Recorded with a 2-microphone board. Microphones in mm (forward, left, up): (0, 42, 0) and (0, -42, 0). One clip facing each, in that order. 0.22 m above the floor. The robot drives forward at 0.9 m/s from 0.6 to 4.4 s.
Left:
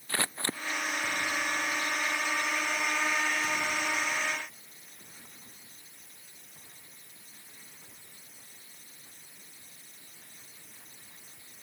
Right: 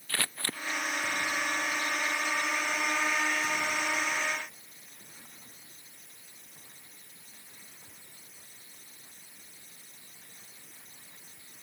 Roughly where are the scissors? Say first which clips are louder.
Left 2 dB; left.